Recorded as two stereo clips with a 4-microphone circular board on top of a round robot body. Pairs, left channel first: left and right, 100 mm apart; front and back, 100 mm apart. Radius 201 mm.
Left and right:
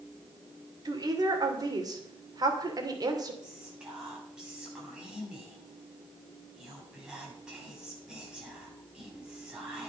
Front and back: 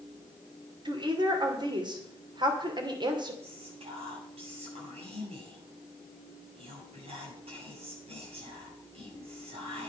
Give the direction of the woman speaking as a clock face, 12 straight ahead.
5 o'clock.